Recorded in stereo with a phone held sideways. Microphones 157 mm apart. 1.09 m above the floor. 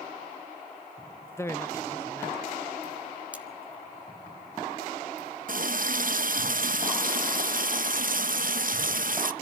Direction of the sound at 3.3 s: 10° right (ahead or behind).